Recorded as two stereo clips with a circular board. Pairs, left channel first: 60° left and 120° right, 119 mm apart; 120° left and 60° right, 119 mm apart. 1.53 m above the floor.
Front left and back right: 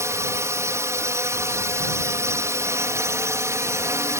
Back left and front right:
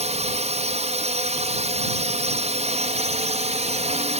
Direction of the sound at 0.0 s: 55° right.